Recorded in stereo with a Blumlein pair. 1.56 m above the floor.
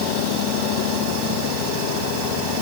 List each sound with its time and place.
Only background noise.